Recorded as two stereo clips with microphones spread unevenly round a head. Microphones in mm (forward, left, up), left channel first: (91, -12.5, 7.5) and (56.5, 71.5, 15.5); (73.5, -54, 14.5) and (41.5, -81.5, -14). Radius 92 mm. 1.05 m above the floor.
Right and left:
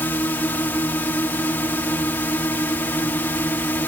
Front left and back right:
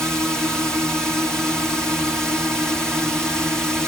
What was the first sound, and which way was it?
A drone, 105° right.